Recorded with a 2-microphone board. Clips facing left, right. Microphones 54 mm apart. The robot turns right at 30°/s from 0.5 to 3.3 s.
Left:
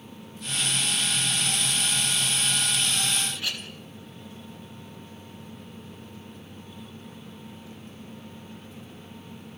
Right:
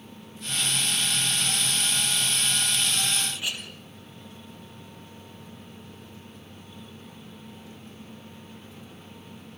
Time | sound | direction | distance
3.3 | a clink | 15° right (ahead or behind) | 3 m